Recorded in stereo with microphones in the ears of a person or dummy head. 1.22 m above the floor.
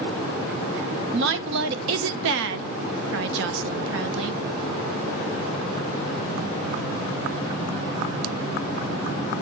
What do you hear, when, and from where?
1.1 s a woman speaking: 65° right (ahead or behind), 0.9 m